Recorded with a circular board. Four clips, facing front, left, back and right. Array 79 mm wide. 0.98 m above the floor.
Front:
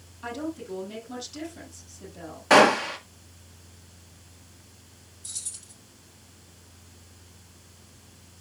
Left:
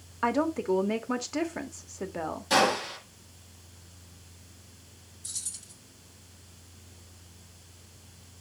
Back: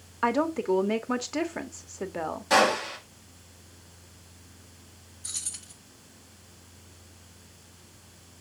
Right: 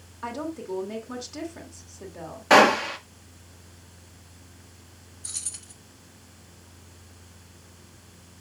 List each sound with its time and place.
0.2 s a woman speaking: 155° left, 1.4 m
2.5 s a gunshot: 55° right, 1.5 m
5.2 s keys jangling: 140° right, 1.4 m